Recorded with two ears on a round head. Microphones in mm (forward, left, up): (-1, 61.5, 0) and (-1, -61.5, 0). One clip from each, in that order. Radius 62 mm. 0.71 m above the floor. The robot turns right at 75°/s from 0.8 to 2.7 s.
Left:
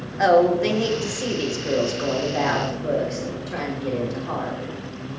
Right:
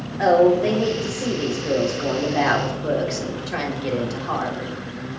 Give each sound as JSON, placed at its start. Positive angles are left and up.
{"t": 0.2, "sound": "a woman speaking", "azimuth_deg": 75, "distance_m": 3.5}